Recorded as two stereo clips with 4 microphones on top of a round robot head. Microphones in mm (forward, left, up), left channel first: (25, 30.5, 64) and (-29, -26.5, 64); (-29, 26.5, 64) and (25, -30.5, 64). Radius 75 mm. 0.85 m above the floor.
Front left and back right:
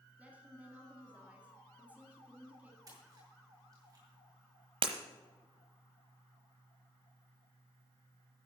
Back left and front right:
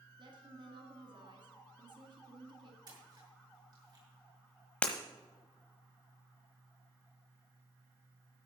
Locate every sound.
0.2 s a woman speaking: 60° right, 2 m
2.9 s a splash: 85° right, 5.5 m
4.8 s breaking glass: 150° right, 1.0 m